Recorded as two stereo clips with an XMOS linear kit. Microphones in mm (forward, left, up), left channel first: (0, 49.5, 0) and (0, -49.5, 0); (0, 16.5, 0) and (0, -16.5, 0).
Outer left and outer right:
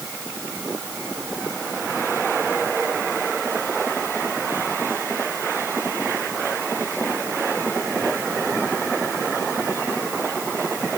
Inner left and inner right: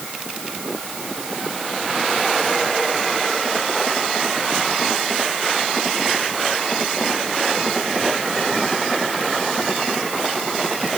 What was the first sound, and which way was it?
Only background noise.